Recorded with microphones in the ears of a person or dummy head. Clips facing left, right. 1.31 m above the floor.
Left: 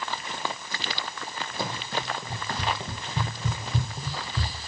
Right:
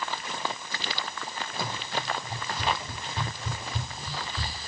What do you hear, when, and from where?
1.6 s running footsteps: 15° left (ahead or behind), 2.5 m